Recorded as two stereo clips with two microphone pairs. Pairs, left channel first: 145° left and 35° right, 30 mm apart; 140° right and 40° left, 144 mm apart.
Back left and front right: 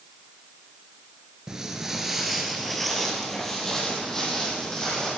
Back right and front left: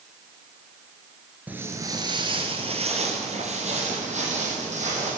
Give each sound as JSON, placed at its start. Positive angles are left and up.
{"t": 1.5, "sound": "footsteps", "azimuth_deg": -25, "distance_m": 1.7}